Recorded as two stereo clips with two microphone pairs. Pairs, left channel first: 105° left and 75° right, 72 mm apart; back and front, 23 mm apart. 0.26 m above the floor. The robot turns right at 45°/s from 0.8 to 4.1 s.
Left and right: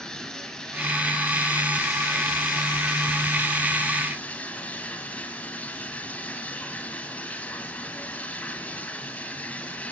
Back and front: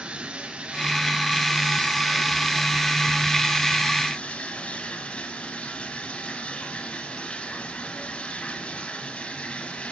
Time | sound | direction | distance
0.0 | running water | 25° left | 2.0 m